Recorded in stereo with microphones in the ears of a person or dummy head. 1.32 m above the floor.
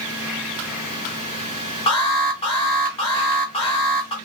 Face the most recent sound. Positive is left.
turn(degrees=25)  # may be behind; listen again after turning